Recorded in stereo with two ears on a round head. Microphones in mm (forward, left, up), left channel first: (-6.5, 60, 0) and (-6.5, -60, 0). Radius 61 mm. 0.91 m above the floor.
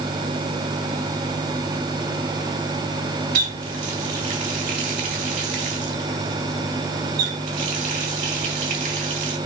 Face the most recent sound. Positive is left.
turn(degrees=-80)